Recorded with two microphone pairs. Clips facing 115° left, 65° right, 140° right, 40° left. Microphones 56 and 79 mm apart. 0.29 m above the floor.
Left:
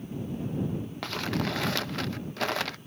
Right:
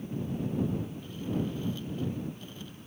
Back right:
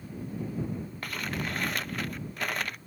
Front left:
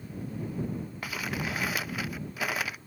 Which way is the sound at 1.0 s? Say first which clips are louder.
Left 6 dB, front left 1 dB; 125° left.